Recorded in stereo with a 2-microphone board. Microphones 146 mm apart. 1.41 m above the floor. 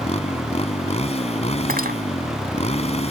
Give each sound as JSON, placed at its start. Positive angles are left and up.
{"t": 0.0, "sound": "a motorcycle", "side_deg": 45}
{"t": 1.7, "sound": "cutlery clinking", "side_deg": -85}